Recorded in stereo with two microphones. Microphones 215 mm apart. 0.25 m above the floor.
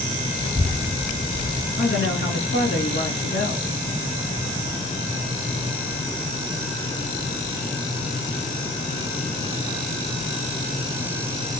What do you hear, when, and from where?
0.4 s a child speaking: 20° left (ahead or behind), 1.0 m; by 1.7 s 40° right (ahead or behind), 1.2 m
1.8 s a woman speaking: 70° left (ahead or behind), 3 m